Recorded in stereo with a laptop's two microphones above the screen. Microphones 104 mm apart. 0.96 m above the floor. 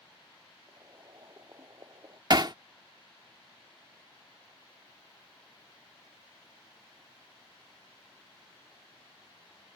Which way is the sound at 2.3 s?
45° right (ahead or behind).